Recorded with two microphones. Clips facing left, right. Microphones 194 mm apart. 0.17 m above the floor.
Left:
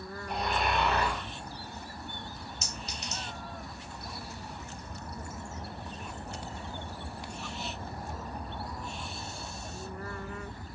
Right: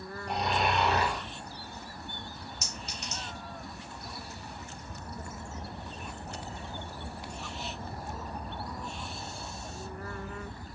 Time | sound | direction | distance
0.3 | snoring | 75° right (ahead or behind) | 1.6 m
2.6 | a clink | centre (ahead or behind) | 1.1 m